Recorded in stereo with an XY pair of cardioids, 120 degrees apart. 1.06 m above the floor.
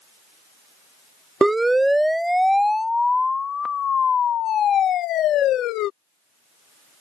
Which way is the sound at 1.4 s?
15° right.